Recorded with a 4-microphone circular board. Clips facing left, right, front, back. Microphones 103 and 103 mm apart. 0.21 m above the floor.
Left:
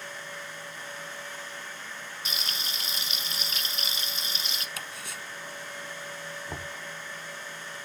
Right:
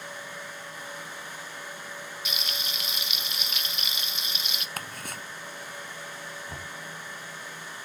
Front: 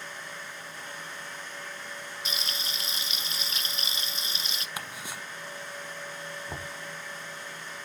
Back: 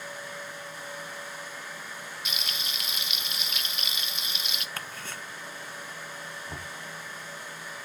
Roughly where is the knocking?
Ahead left.